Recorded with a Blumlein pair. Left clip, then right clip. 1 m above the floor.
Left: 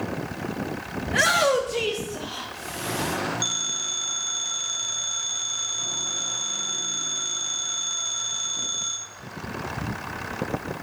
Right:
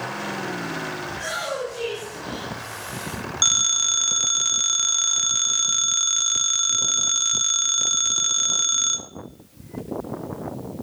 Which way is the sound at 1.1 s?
50° left.